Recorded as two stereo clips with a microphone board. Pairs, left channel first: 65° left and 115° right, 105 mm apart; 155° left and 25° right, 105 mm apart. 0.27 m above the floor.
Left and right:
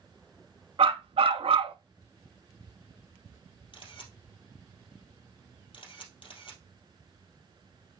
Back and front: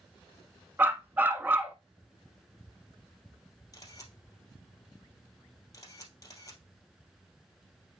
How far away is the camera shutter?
About 2.5 m.